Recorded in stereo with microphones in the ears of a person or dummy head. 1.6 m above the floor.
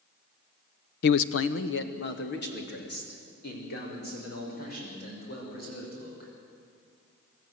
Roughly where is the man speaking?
Left.